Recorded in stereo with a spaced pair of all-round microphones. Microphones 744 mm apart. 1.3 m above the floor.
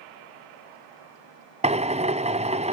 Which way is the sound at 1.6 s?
10° right (ahead or behind).